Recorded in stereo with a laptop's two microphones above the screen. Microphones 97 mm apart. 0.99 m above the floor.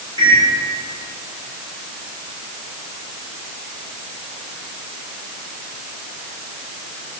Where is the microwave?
50° right (ahead or behind), 3 m.